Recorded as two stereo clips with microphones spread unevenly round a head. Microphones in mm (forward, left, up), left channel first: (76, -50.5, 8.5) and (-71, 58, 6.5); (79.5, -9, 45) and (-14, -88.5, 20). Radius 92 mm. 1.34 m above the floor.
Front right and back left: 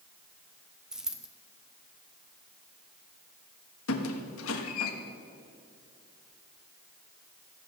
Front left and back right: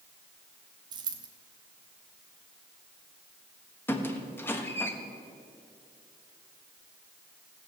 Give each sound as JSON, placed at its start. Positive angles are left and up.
{"t": 0.9, "sound": "a dropped coin", "azimuth_deg": -135, "distance_m": 0.7}
{"t": 3.9, "sound": "a squeak", "azimuth_deg": -30, "distance_m": 1.3}